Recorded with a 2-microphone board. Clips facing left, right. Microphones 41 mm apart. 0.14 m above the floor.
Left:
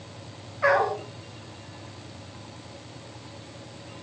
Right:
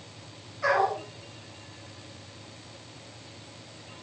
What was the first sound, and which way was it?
A dog barking, 30° left (ahead or behind).